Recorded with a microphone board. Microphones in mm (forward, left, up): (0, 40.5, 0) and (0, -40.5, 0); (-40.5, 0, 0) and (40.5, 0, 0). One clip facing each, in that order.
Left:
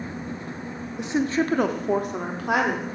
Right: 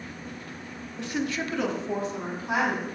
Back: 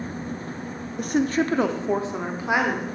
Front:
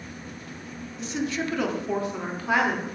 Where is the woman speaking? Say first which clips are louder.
Left 6 dB, back 7 dB; 160° left, 0.8 m; by 2.9 s 105° left, 1.7 m.